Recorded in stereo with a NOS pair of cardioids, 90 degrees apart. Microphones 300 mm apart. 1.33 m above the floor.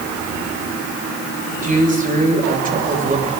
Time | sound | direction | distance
1.6 | a man speaking | 25° right | 8 m